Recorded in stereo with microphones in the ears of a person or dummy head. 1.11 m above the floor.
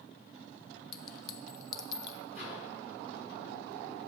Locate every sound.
0.9 s a clink: 25° left (ahead or behind), 0.9 m
2.4 s a microwave: 5° left (ahead or behind), 6 m